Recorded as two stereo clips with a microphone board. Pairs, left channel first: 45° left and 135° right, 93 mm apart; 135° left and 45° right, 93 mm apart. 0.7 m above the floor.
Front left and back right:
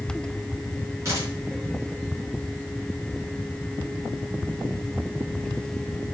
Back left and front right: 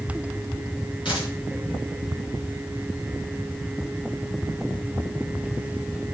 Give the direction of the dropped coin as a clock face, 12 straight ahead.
6 o'clock.